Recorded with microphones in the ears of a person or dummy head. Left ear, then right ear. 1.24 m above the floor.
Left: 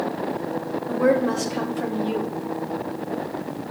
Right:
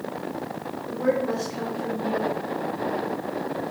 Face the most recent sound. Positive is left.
turn(degrees=45)  # may be behind; listen again after turning